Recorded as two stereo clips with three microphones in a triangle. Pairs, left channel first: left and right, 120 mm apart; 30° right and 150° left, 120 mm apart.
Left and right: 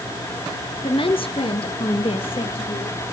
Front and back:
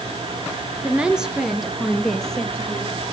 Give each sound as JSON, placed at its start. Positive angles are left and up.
{"t": 0.8, "sound": "a woman speaking", "azimuth_deg": 75, "distance_m": 1.6}